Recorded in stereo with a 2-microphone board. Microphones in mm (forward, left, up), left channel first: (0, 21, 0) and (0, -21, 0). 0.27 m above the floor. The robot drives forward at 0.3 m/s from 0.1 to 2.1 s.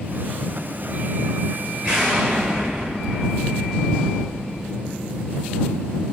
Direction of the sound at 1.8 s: 20° right (ahead or behind).